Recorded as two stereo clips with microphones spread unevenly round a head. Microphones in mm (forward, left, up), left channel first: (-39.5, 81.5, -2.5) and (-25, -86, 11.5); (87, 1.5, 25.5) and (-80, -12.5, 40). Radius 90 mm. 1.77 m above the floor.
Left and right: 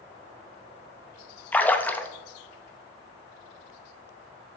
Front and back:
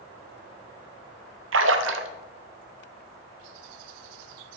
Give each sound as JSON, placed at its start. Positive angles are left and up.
{"t": 1.5, "sound": "a splash", "azimuth_deg": 175, "distance_m": 0.6}